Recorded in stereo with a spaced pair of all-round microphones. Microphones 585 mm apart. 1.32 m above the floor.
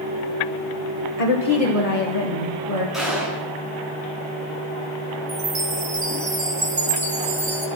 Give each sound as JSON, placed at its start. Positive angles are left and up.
{"t": 1.2, "sound": "a woman speaking", "side_deg": 75, "distance_m": 1.1}
{"t": 2.9, "sound": "a gunshot", "side_deg": 0, "distance_m": 9.5}
{"t": 5.3, "sound": "a chime", "side_deg": -75, "distance_m": 1.5}